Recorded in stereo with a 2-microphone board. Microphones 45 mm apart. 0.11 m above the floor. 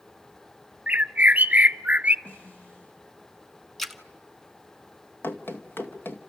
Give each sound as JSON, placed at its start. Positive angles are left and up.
{"t": 0.9, "sound": "a bird", "side_deg": -30, "distance_m": 0.6}
{"t": 2.2, "sound": "a snare drum", "side_deg": 40, "distance_m": 5.5}
{"t": 3.8, "sound": "a splash", "side_deg": 0, "distance_m": 0.9}
{"t": 5.2, "sound": "running footsteps", "side_deg": 50, "distance_m": 2.0}